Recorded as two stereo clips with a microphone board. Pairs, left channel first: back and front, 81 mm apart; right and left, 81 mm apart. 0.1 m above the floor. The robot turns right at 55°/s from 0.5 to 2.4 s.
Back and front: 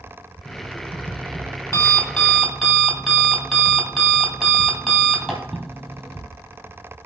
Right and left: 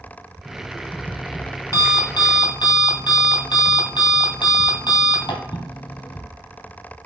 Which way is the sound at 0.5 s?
160° left.